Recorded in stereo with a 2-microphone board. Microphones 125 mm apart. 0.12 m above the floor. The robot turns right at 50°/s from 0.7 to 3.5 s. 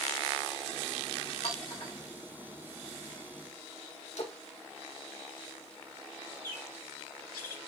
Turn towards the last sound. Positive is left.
turn(degrees=20)  # may be behind; listen again after turning